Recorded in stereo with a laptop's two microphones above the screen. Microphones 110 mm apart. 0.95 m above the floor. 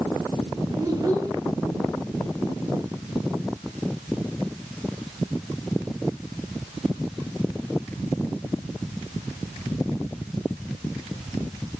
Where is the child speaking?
30° right (ahead or behind), 5.5 m.